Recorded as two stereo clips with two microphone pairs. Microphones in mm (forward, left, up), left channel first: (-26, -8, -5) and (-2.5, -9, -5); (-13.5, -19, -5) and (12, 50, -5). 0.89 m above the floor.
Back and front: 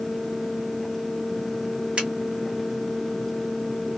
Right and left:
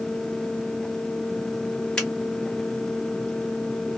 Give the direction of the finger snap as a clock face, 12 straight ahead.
1 o'clock.